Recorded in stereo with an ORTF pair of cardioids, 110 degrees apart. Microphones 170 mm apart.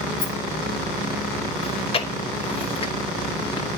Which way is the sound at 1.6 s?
35° left.